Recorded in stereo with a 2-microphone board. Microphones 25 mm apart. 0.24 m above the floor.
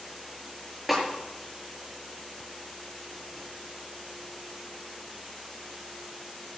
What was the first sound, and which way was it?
A snare drum, centre (ahead or behind).